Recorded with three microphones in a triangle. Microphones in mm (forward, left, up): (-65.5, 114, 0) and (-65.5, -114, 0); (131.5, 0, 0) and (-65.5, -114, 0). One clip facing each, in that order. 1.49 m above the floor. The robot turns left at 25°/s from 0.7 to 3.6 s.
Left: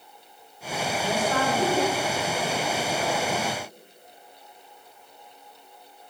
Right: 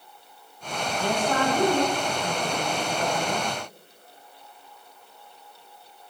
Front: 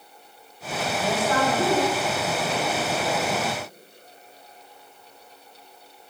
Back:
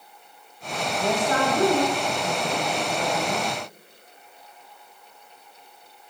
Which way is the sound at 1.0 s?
85° right.